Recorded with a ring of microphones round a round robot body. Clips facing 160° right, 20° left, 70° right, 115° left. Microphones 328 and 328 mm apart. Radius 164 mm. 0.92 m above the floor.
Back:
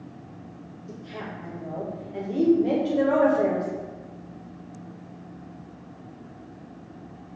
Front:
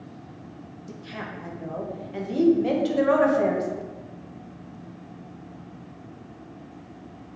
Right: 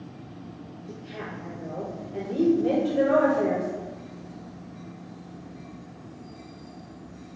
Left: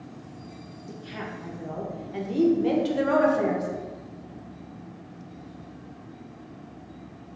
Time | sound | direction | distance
0.9 | a woman speaking | 60° left | 0.8 m